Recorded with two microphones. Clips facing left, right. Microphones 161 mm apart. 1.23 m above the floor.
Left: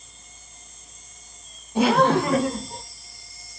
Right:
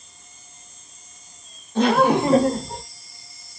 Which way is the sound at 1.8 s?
10° left (ahead or behind).